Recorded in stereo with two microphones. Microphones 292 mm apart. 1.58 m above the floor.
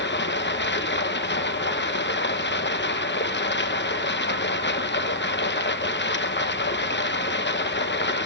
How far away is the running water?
About 0.8 m.